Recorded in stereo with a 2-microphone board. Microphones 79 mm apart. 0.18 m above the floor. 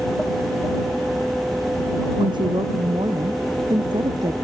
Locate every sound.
2.2 s a woman speaking: 85° right